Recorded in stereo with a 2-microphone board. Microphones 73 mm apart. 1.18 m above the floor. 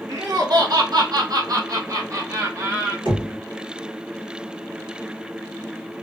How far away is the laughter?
About 0.7 m.